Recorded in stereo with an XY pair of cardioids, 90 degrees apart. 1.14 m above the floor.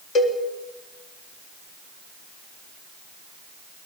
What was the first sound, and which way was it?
A cowbell, 65° left.